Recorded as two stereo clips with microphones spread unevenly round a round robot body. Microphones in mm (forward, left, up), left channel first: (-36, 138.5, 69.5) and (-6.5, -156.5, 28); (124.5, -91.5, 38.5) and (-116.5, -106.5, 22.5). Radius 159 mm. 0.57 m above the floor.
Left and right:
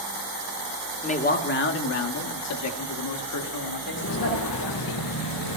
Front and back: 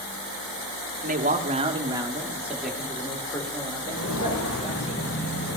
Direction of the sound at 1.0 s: 160° left.